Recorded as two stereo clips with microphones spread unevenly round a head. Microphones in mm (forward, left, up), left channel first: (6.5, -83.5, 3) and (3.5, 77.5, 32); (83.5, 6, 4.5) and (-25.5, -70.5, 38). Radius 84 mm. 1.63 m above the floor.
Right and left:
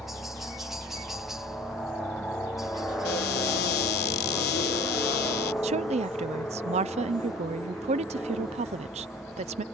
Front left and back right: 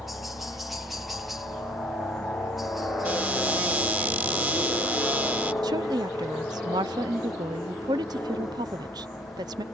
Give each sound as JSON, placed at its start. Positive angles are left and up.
{"t": 0.0, "sound": "a helicopter", "azimuth_deg": -20}
{"t": 3.0, "sound": "a cupboard door", "azimuth_deg": -85}
{"t": 5.6, "sound": "a woman speaking", "azimuth_deg": 145}